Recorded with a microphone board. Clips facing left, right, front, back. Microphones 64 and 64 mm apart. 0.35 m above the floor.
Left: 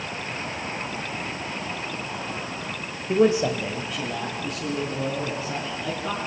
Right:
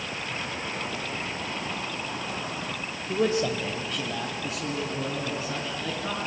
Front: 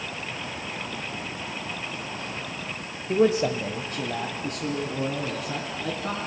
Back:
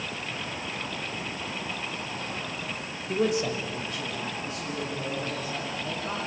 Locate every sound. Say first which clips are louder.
3.1 s a man speaking: left 5 dB, front 5 dB; 55° left, 1.1 m; by 6.2 s 10° right, 4 m